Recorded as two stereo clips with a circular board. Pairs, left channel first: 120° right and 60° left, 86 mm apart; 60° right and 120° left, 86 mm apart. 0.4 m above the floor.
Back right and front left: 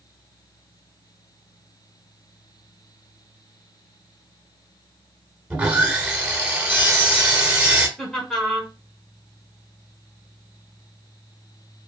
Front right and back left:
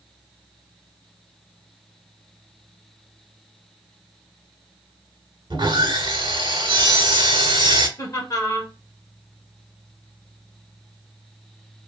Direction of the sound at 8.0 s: 40° right.